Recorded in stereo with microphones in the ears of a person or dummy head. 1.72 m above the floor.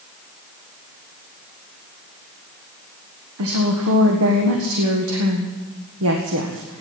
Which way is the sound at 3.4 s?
75° right (ahead or behind).